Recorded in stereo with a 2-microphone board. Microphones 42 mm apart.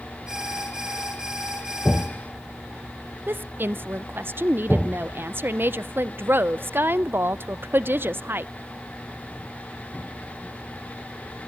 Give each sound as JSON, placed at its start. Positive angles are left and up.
{"t": 0.3, "sound": "an alarm", "side_deg": -15, "distance_m": 3.5}
{"t": 3.3, "sound": "a woman speaking", "side_deg": -55, "distance_m": 0.6}